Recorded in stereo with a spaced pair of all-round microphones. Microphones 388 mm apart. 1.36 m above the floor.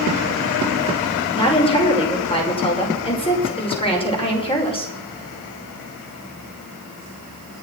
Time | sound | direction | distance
1.4 | a woman speaking | 15° left (ahead or behind) | 5.5 m